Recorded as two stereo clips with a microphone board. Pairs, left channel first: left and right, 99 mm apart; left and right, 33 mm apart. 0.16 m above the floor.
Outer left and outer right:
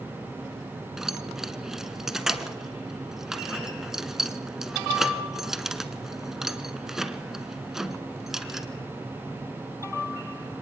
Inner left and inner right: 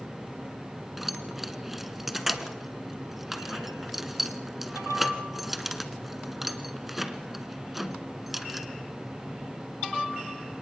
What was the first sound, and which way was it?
Keys jangling, 5° right (ahead or behind).